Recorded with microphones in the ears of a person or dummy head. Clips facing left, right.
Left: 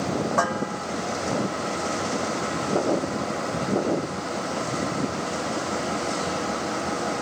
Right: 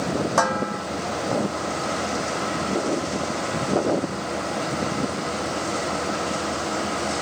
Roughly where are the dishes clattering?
Right.